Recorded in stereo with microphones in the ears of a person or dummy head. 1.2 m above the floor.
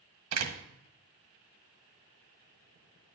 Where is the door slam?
85° right, 1.3 m.